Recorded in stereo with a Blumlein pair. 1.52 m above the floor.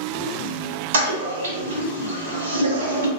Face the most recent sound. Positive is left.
turn(degrees=-70)